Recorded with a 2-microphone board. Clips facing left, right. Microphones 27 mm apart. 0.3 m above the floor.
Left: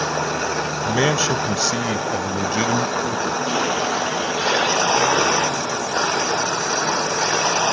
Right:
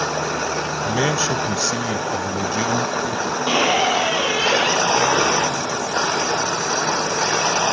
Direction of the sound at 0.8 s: 20° left (ahead or behind).